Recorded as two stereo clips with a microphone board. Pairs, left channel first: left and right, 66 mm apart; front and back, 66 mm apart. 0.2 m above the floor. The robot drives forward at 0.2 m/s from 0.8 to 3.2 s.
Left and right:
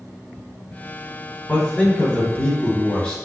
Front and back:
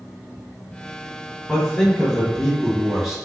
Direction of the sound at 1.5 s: 55° left.